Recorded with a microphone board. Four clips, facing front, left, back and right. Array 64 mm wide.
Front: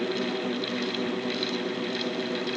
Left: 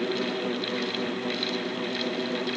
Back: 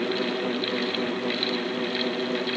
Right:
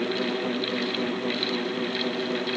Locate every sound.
Only background noise.